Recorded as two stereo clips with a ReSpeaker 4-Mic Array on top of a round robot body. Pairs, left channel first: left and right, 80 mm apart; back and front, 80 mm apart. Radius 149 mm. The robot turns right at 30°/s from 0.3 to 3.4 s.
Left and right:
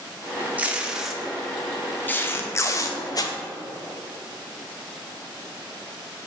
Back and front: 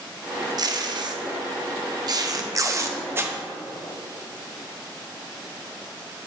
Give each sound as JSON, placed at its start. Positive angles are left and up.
{"t": 0.6, "sound": "tape being pulled", "azimuth_deg": -20, "distance_m": 0.8}